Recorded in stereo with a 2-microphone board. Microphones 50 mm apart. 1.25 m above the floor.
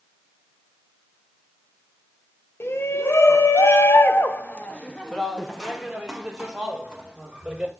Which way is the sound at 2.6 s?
55° left (ahead or behind).